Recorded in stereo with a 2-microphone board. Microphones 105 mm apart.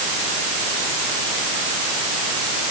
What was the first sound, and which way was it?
Only background noise.